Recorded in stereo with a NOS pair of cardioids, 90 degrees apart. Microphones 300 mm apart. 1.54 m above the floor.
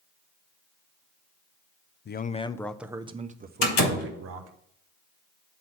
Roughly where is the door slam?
Left.